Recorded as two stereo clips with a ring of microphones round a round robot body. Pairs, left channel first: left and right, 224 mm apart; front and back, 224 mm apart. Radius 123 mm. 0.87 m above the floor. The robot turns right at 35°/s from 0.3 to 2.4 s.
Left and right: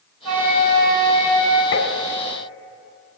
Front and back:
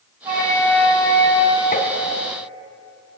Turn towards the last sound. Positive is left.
turn(degrees=80)